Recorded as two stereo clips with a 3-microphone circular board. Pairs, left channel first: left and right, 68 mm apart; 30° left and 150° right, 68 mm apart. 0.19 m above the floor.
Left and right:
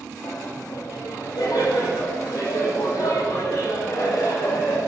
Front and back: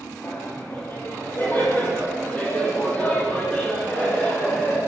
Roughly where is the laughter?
Left.